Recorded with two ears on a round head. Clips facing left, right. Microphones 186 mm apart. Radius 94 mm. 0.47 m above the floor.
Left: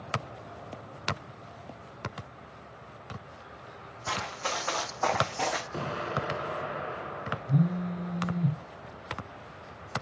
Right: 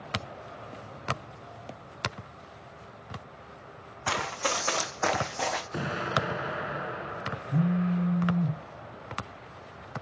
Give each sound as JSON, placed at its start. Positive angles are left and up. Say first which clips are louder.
{"t": 4.1, "sound": "running footsteps", "louder": "right 4 dB", "side_deg": -60, "distance_m": 2.0}
{"t": 5.7, "sound": "an explosion", "louder": "right 2 dB", "side_deg": -15, "distance_m": 0.9}
{"t": 7.5, "sound": "a phone buzzing", "louder": "right 2 dB", "side_deg": 15, "distance_m": 0.8}